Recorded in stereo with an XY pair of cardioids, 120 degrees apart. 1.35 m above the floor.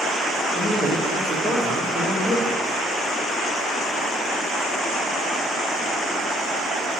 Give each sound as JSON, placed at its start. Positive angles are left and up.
{"t": 0.5, "sound": "a man speaking", "azimuth_deg": -30, "distance_m": 1.5}